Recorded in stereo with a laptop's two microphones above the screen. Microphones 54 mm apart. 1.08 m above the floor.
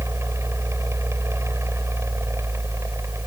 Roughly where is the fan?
Right.